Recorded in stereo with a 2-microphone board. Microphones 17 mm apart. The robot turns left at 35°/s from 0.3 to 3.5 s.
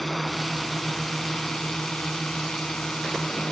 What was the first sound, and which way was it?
A drone, 170° left.